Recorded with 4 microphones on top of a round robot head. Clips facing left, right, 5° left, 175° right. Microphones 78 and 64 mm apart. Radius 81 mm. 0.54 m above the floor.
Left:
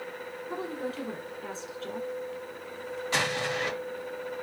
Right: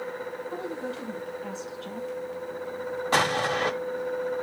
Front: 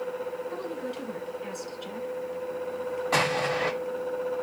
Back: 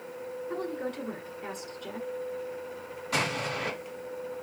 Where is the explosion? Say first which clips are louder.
Right 5 dB, front 4 dB; 50° right, 1.0 m.